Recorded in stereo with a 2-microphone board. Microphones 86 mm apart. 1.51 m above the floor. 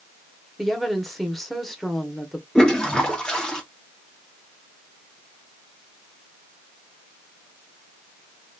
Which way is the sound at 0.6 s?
Centre (ahead or behind).